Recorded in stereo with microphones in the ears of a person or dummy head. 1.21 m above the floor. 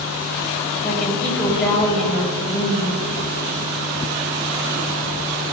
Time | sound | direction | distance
0.8 | a woman speaking | 5° left (ahead or behind) | 6.5 m